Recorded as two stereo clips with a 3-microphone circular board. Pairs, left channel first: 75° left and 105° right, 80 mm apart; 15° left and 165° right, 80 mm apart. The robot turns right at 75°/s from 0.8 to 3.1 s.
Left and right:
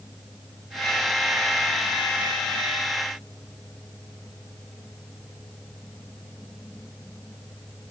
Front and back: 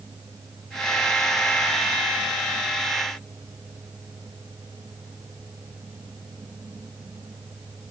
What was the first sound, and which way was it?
Only background noise.